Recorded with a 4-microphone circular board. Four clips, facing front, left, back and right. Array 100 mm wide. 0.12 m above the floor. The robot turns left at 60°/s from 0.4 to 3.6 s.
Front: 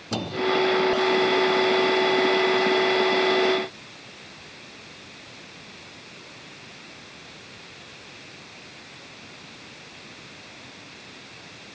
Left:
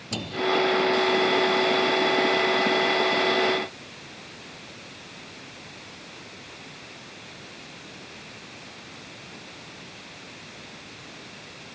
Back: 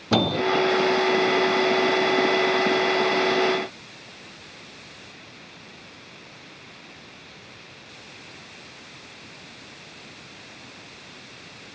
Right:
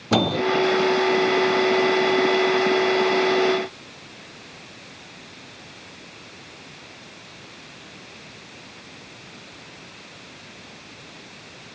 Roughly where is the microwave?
Behind right.